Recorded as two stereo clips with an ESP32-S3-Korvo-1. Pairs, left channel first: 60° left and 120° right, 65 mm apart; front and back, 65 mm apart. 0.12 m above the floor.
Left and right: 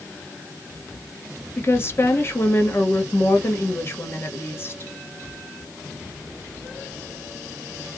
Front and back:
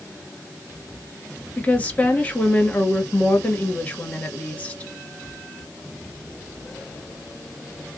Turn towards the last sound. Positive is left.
turn(degrees=55)